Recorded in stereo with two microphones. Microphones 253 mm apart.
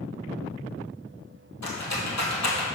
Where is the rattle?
80° left, 1.5 m.